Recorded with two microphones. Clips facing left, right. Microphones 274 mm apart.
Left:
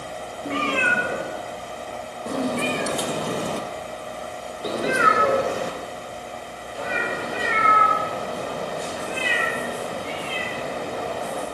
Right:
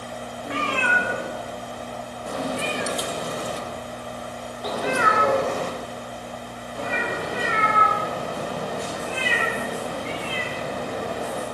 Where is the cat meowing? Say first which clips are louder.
Left 3 dB; 35° left (ahead or behind), 3.5 m; by 11.4 s 10° right (ahead or behind), 8 m.